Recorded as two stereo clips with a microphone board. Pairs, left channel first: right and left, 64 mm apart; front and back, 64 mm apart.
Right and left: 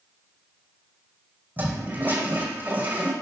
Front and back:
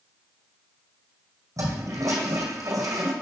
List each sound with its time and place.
1.6 s a toilet flushing: 150° left, 2.0 m